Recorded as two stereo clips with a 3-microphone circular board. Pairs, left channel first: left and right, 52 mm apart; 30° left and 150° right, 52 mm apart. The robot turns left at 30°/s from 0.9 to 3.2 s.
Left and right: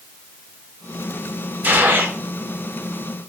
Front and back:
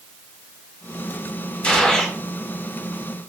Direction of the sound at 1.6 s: 35° right.